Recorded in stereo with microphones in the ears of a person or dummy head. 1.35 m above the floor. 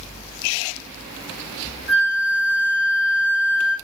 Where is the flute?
55° right (ahead or behind), 1.6 m.